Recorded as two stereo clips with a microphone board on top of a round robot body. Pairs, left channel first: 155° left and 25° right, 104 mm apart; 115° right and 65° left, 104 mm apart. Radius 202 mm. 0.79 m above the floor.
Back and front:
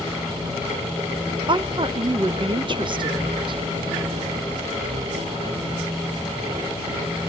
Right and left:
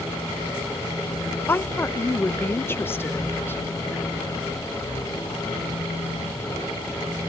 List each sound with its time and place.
1.5 s a woman speaking: 50° right, 1.1 m